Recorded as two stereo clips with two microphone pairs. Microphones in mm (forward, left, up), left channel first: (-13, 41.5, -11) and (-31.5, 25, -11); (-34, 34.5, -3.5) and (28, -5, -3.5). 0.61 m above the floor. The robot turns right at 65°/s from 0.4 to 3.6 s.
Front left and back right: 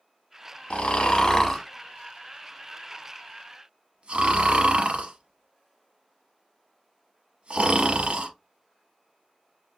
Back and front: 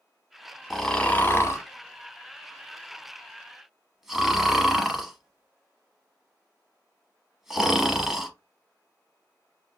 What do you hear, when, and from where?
0.7 s snoring: 55° left, 0.7 m; by 8.3 s 115° right, 0.7 m